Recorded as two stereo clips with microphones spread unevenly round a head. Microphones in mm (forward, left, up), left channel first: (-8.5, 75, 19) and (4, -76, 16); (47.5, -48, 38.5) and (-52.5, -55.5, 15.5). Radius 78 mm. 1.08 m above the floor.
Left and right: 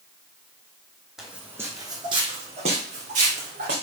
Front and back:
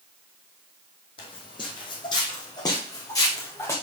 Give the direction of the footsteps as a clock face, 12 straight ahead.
12 o'clock.